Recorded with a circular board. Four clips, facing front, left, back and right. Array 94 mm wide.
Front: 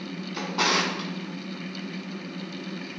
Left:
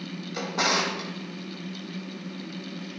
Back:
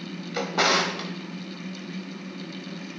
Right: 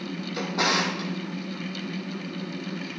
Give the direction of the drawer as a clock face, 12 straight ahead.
6 o'clock.